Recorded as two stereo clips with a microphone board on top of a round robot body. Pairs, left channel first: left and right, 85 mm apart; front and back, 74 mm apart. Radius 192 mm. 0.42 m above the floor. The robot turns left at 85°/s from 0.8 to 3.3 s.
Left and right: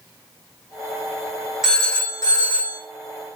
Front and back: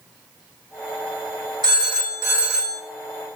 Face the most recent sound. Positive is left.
turn(degrees=45)